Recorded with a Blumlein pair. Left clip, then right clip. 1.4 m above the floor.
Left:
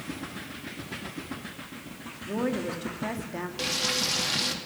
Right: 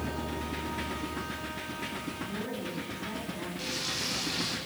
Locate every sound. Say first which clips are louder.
2.2 s a woman speaking: left 6 dB; 40° left, 2.5 m
3.6 s frying: left 7 dB; 60° left, 2.5 m